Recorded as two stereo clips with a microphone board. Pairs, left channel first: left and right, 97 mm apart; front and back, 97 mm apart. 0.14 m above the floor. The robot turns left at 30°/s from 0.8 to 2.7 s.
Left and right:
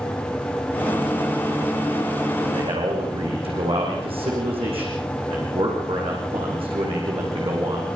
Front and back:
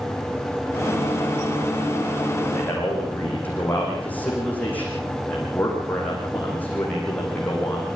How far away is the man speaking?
About 9.5 m.